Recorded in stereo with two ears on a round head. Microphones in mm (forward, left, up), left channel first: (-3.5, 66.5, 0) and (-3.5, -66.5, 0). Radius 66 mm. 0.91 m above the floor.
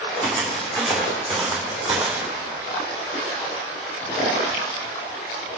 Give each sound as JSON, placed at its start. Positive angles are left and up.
{"t": 0.2, "sound": "footsteps", "side_deg": 5, "distance_m": 3.5}